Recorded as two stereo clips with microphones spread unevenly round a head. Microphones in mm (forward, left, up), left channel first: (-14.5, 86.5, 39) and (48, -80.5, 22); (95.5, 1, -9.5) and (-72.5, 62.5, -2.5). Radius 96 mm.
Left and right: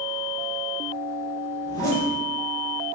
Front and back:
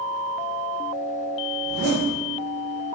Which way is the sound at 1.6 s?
Straight behind.